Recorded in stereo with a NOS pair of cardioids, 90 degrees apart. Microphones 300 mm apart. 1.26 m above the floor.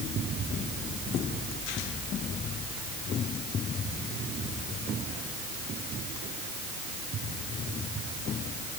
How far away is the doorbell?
I don't hear a doorbell.